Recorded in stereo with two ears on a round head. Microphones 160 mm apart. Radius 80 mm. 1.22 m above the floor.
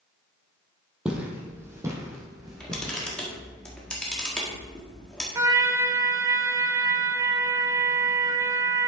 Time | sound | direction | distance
1.1 | footsteps | 5° right (ahead or behind) | 1.5 m
2.4 | a camera shutter | 5° left (ahead or behind) | 1.5 m
5.3 | a trumpet | 15° right (ahead or behind) | 0.5 m